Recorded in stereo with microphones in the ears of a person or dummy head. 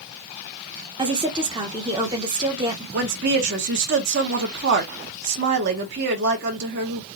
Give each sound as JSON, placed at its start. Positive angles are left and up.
{"t": 1.0, "sound": "a woman speaking", "side_deg": -15, "distance_m": 0.7}
{"t": 2.9, "sound": "a woman speaking", "side_deg": -50, "distance_m": 0.8}